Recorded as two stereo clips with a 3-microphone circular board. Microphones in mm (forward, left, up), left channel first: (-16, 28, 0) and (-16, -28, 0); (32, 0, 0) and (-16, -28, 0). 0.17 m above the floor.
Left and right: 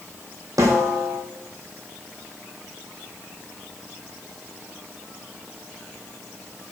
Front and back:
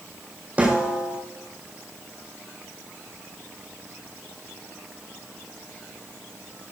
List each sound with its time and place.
0.6 s a snare drum: 90° right, 4 m